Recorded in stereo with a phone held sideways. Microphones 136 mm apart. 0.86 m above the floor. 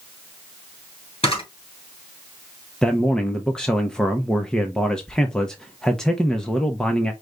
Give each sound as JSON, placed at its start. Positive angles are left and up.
{"t": 1.2, "sound": "a camera shutter", "side_deg": 45, "distance_m": 2.5}
{"t": 2.8, "sound": "a man speaking", "side_deg": 5, "distance_m": 0.6}